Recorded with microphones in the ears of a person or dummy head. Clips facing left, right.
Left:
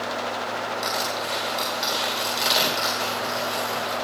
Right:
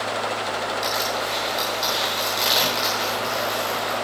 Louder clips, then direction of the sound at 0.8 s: Right 2 dB; 10° right (ahead or behind).